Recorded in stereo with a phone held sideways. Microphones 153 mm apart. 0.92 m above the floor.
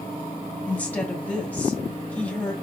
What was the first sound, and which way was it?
A woman speaking, 10° left (ahead or behind).